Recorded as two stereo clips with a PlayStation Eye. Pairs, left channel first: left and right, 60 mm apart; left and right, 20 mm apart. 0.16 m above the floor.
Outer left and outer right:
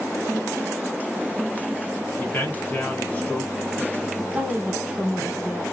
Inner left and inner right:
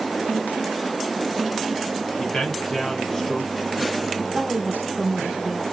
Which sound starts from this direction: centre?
A woman speaking, at 4.3 s.